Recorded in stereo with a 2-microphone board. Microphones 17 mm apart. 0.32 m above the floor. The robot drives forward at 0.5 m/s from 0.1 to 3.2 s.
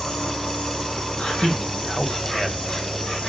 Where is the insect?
75° left (ahead or behind), 3 m; by 3.3 s 50° left (ahead or behind), 4 m.